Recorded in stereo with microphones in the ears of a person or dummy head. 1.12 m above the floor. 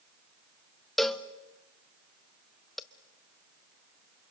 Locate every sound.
1.0 s a cowbell: centre (ahead or behind), 0.6 m